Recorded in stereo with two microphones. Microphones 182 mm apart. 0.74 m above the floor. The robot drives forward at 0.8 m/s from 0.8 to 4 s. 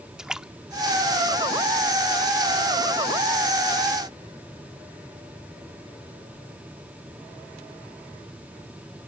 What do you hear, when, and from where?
0.2 s a splash: 5° right (ahead or behind); by 2.3 s centre (ahead or behind)